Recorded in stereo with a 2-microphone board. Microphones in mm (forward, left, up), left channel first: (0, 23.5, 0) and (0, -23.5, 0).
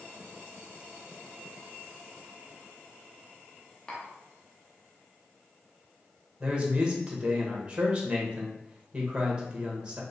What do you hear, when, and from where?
3.9 s tapping: 20° left (ahead or behind), 0.7 m
6.4 s a man speaking: 20° right (ahead or behind), 0.8 m